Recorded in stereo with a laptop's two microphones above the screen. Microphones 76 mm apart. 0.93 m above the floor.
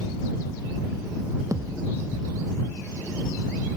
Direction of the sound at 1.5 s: 45° right (ahead or behind).